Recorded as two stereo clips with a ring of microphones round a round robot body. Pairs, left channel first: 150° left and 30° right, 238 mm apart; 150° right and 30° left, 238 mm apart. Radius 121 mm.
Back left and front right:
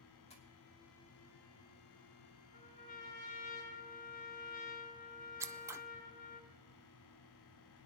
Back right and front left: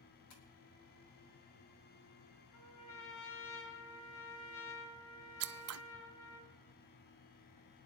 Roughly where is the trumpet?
Behind right.